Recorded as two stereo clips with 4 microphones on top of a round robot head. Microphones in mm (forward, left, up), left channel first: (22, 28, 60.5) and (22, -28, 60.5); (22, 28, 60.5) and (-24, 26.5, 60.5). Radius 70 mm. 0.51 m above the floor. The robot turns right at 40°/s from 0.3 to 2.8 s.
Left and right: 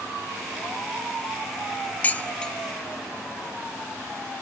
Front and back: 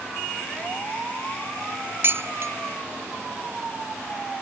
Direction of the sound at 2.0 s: 150° left.